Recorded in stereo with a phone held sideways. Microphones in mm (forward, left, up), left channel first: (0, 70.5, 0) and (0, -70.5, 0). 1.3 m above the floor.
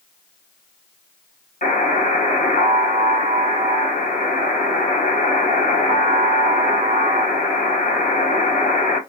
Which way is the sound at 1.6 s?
75° left (ahead or behind).